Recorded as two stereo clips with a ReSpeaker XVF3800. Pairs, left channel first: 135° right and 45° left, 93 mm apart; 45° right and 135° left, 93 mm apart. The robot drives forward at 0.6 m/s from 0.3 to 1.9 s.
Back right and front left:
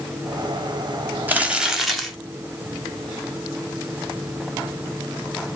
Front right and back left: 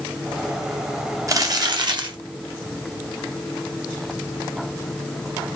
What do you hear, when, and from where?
1.3 s crumpling: 105° left, 0.8 m; by 2.2 s 135° left, 1.0 m